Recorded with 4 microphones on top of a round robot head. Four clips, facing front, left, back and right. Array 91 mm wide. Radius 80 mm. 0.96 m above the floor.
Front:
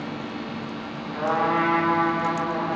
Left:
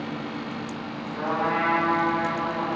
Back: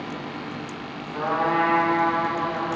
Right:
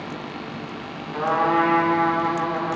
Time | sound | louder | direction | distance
1.1 | a trumpet | right 6 dB, even | 100° right | 2.5 m